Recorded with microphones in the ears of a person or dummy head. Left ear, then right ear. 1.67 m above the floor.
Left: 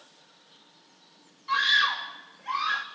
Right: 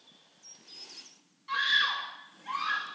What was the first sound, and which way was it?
A scream, 30° left (ahead or behind).